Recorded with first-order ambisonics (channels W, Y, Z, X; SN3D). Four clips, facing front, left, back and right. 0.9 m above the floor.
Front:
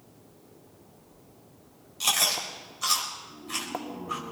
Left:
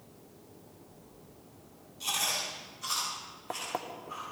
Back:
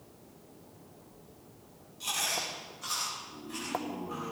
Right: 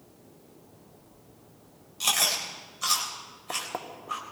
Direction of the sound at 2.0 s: 45° right.